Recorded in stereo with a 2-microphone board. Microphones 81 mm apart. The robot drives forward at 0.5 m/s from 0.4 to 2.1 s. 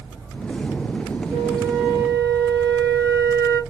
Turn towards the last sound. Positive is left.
turn(degrees=-20)  # may be behind; listen again after turning